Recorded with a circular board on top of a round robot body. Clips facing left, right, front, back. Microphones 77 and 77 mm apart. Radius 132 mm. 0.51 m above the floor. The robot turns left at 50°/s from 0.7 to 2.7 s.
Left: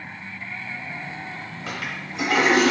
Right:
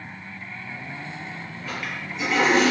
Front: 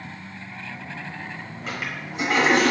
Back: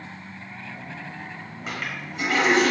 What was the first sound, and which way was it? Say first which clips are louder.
A toilet flushing: even, even; 95° left.